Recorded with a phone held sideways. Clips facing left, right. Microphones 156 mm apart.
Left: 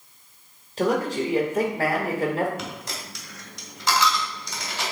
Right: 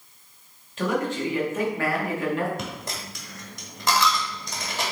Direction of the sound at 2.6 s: 55° right (ahead or behind).